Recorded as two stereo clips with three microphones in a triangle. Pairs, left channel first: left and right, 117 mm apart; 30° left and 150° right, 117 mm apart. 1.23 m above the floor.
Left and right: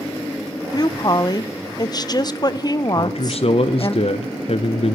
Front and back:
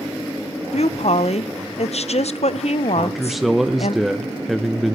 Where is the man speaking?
120° left, 0.5 m.